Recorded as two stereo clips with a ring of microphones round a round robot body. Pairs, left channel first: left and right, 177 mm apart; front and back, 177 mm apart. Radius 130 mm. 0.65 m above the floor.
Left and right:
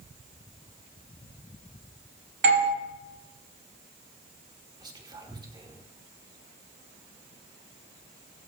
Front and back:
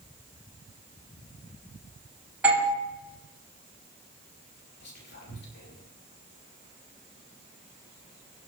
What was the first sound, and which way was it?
A doorbell, 100° right.